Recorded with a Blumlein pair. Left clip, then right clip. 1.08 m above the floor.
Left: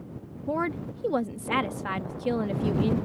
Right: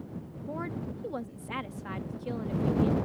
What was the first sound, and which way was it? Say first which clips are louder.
A woman speaking: left 8 dB; 25° left.